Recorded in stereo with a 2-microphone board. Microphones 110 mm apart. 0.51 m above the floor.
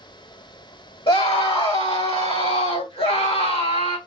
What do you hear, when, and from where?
1.1 s a scream: 55° left (ahead or behind), 2.5 m; by 4.0 s 75° left (ahead or behind), 4 m